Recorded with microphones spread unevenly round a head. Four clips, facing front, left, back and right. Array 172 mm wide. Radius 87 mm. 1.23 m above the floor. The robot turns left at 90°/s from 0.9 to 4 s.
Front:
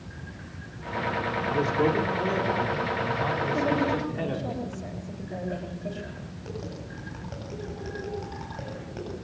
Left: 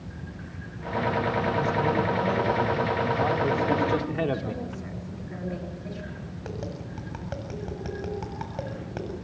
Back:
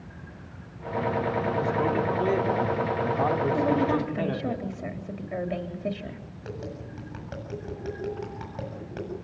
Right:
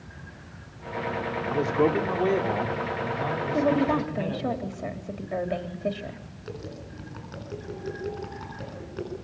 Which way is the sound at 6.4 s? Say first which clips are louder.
Left 2 dB, back 1 dB; 100° left.